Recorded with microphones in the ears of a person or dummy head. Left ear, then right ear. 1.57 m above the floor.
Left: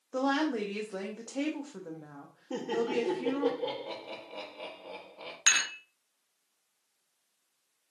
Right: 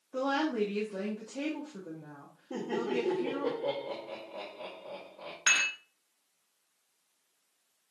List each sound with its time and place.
0.1 s a woman speaking: 65° left (ahead or behind), 0.8 m
2.5 s laughter: 85° left, 1.3 m
5.5 s dishes clattering: 20° left (ahead or behind), 1.1 m